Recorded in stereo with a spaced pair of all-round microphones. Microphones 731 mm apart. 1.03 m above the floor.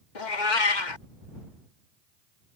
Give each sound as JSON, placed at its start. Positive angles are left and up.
{"t": 0.1, "sound": "a cat meowing", "side_deg": 80}